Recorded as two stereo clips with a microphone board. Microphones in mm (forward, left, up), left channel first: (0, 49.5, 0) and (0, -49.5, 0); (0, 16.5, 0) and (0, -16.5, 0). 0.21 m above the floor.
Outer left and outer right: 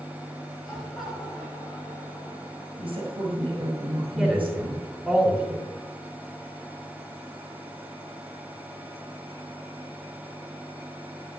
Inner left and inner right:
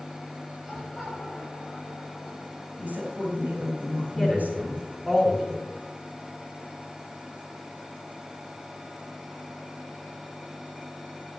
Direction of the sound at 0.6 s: Centre (ahead or behind).